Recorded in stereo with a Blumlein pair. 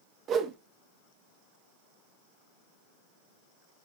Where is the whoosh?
30° right, 0.8 m.